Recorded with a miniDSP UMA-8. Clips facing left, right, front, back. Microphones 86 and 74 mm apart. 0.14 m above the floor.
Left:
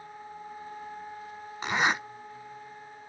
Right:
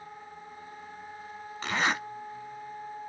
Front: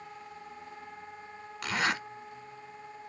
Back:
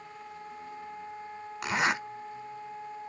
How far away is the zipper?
About 1.2 m.